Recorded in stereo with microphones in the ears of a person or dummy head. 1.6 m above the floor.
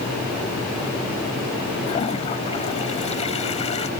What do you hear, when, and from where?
1.9 s a toilet flushing: 35° left (ahead or behind)